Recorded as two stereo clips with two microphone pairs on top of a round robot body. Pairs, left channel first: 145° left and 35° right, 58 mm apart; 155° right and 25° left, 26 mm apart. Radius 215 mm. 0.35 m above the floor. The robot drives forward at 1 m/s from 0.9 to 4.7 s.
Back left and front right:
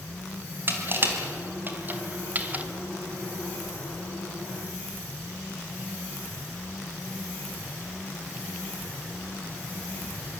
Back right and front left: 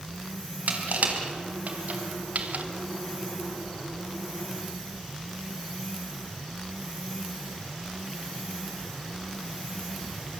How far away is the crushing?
About 3.5 m.